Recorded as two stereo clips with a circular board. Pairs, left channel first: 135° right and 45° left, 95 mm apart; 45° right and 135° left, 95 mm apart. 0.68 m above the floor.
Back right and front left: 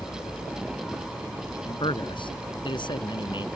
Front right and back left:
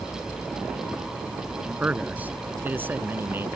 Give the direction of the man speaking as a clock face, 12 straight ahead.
5 o'clock.